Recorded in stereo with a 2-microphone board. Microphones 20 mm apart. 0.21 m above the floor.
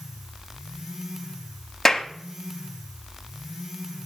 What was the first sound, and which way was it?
A clap, 20° left (ahead or behind).